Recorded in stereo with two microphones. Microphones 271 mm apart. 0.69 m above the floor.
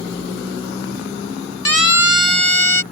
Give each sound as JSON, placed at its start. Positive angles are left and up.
{"t": 1.6, "sound": "a siren", "side_deg": 55}